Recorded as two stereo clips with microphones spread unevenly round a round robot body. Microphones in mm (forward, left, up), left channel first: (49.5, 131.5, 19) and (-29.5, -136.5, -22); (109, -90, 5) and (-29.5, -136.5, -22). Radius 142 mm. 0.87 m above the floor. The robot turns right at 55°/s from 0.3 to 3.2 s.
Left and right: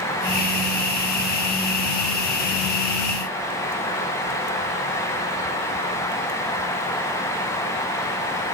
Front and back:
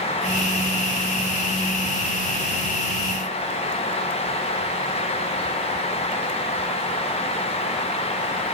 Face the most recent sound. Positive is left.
No sound to turn to.